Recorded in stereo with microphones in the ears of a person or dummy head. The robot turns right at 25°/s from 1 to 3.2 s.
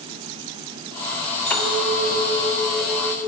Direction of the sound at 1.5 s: 150° right.